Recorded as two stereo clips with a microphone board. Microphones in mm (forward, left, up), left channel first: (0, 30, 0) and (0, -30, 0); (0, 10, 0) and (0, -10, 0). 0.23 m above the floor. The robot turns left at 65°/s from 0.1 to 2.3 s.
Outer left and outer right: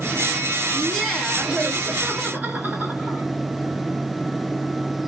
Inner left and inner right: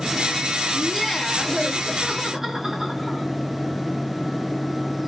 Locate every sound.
0.7 s laughter: 25° left, 1.8 m; by 3.2 s 75° right, 1.8 m